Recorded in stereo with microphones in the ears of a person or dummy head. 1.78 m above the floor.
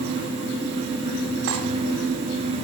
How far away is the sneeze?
I don't hear a sneeze.